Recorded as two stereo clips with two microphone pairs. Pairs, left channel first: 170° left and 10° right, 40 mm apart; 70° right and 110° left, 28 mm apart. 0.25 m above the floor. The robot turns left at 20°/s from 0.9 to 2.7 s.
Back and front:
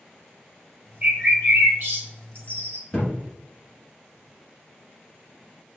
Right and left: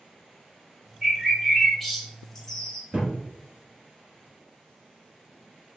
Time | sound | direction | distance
1.0 | a bird | 35° left | 1.2 m
2.9 | a thud | 100° left | 1.6 m